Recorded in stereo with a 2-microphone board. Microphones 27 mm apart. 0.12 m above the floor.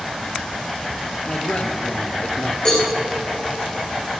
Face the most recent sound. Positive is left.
turn(degrees=30)  # may be behind; listen again after turning